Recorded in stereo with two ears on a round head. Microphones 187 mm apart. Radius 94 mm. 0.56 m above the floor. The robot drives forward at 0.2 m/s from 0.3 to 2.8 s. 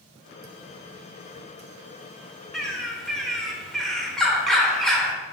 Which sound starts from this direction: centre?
A bird, at 2.5 s.